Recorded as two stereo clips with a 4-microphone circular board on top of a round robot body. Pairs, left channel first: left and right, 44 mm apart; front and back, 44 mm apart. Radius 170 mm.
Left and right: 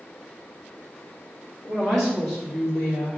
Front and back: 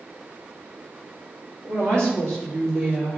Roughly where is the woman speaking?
Behind.